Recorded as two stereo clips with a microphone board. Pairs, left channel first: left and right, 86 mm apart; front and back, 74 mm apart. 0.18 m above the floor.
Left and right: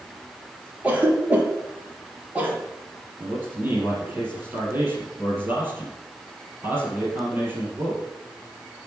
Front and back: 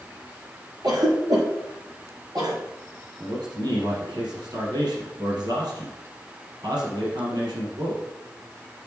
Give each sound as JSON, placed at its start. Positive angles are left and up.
{"t": 0.8, "sound": "a cough", "azimuth_deg": -160, "distance_m": 3.0}
{"t": 3.2, "sound": "a man speaking", "azimuth_deg": -160, "distance_m": 4.0}